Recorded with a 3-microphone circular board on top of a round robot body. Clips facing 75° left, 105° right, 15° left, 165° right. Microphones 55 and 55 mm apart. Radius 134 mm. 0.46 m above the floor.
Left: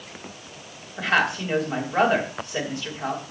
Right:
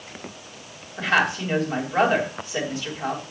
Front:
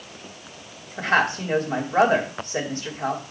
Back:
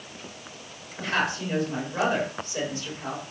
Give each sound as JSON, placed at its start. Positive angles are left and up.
{"t": 1.0, "sound": "a woman speaking", "azimuth_deg": -10, "distance_m": 3.0}